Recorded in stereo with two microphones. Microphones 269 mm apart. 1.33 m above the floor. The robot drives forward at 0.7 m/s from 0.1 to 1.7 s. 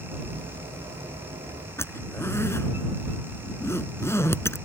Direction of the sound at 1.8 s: 10° left (ahead or behind).